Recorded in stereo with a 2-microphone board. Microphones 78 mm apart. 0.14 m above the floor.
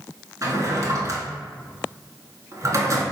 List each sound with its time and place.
0.4 s a drawer: 45° right (ahead or behind), 0.7 m